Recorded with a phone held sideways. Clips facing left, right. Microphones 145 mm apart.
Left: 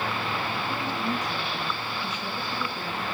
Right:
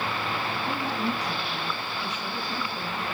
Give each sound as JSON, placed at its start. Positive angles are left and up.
{"t": 0.7, "sound": "a woman speaking", "side_deg": -65, "distance_m": 9.5}